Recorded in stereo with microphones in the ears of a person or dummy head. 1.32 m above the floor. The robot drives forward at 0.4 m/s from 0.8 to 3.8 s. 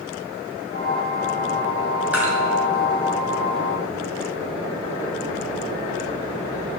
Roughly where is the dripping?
Centre.